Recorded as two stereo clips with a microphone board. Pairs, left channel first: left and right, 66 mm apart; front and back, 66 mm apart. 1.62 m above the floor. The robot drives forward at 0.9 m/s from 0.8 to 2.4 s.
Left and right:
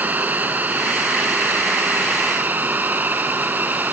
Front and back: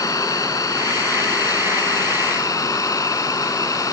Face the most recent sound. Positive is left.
turn(degrees=-30)